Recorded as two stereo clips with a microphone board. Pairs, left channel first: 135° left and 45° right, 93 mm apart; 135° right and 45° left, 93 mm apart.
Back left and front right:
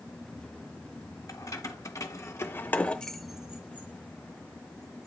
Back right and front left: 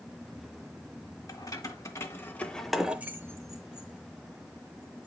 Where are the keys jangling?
Straight behind, 1.5 m; by 5.1 s 15° left, 1.9 m.